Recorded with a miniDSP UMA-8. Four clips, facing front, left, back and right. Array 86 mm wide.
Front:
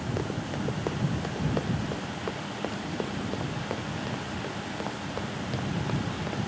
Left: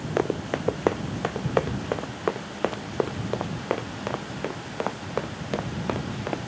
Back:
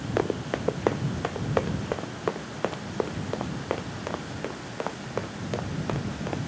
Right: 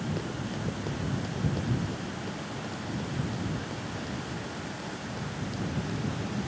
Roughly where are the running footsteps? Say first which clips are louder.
Left 9 dB, back 8 dB; behind left.